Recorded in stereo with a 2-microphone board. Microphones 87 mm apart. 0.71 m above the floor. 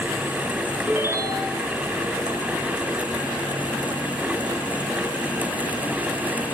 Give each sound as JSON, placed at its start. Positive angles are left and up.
{"t": 0.9, "sound": "a ringtone", "side_deg": -25, "distance_m": 3.5}